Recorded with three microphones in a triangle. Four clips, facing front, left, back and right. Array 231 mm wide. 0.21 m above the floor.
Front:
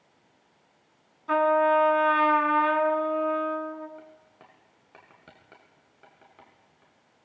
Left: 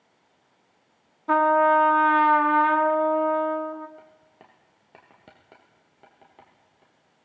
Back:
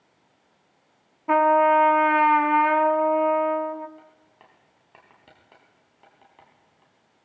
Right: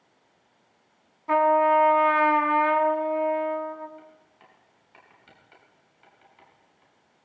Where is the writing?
85° left, 6 m.